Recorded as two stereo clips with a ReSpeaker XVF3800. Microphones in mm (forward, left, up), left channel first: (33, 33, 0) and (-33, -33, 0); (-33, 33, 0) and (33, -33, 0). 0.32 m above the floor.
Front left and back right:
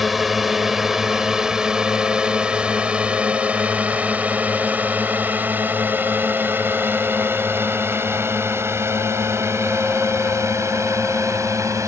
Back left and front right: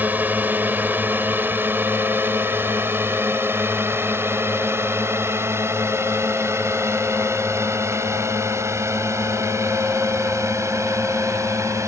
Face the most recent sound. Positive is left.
turn(degrees=-90)